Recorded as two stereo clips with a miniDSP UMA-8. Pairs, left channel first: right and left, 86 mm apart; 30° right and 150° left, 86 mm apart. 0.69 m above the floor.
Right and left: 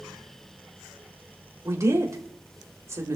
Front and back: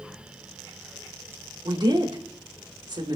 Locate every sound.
1.6 s a woman speaking: 140° left, 3 m